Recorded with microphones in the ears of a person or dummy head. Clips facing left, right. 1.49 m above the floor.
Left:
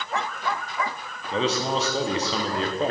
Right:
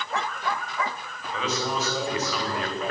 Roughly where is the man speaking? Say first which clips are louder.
Left 4 dB; left.